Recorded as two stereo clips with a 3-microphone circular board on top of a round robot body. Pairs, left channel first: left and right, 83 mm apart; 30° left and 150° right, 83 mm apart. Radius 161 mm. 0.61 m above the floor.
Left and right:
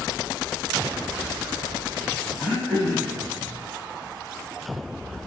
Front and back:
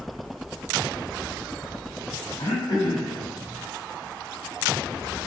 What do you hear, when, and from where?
2.4 s throat clearing: 5° right, 6 m